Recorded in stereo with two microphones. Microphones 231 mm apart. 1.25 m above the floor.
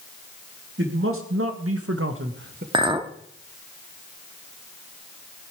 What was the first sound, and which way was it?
A man speaking, 55° right (ahead or behind).